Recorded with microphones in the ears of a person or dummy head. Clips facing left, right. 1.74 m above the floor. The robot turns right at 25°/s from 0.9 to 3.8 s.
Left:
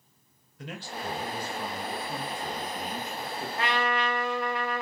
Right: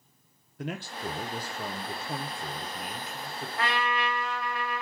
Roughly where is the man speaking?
Ahead right.